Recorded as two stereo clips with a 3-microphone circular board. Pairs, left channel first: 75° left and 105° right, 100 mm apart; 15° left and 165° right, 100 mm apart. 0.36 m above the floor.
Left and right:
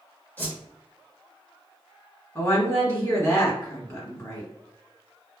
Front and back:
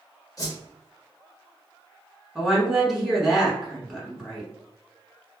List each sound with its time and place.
0.4 s a whoosh: 20° left, 0.8 m
2.4 s a woman speaking: 105° left, 1.4 m